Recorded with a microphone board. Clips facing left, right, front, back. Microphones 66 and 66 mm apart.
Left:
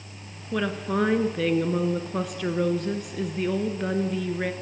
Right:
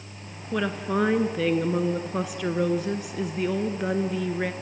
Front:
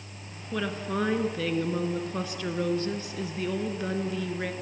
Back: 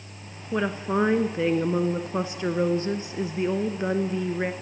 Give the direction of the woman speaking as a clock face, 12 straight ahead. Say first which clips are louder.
Even, back 5 dB; 6 o'clock.